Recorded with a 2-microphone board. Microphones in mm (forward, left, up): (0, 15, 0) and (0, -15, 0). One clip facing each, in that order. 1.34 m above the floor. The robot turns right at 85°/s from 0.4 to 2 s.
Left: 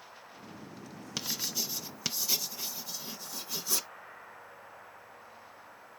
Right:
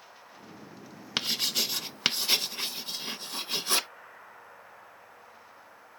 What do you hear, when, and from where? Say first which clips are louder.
1.2 s writing: right 7 dB; 50° right (ahead or behind)